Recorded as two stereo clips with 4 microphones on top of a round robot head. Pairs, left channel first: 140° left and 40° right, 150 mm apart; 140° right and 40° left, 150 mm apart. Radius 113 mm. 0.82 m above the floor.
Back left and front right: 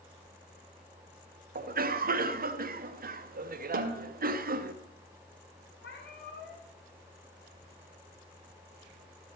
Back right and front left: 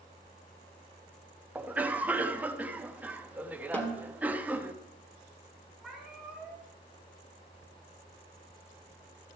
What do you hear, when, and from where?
1.6 s a cough: 40° right, 1.2 m
3.7 s a snare drum: 60° right, 1.6 m
5.8 s a cat meowing: 125° left, 4.5 m